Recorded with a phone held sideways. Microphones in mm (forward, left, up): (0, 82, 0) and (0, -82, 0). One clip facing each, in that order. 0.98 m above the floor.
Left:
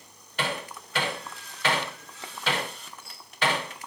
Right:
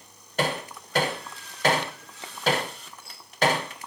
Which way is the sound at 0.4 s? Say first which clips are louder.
Right 4 dB; 40° right (ahead or behind).